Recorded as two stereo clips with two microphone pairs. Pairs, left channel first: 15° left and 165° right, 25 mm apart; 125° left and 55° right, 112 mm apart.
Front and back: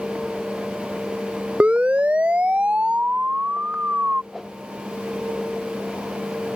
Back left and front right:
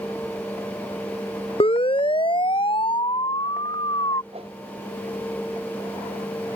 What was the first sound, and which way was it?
A siren, 160° left.